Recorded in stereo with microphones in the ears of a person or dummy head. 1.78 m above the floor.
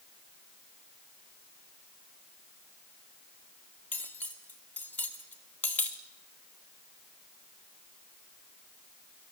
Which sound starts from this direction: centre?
Cutlery clinking, at 3.9 s.